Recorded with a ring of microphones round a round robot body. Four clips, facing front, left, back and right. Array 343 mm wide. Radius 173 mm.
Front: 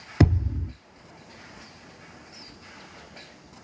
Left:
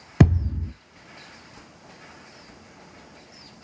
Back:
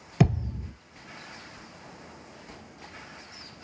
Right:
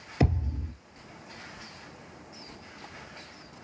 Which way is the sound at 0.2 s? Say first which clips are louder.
Left 8 dB, front 2 dB; 75° left.